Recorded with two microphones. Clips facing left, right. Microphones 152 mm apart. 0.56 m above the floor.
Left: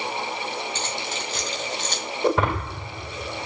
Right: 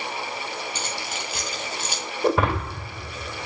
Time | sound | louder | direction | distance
0.8 | keys jangling | left 2 dB | 10° right (ahead or behind) | 3 m
2.2 | breaking glass | even | 5° right (ahead or behind) | 2 m